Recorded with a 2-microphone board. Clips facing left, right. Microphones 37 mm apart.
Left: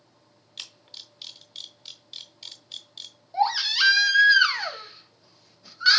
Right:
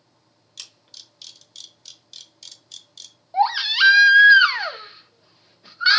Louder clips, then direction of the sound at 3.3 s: Right 4 dB; 25° right (ahead or behind).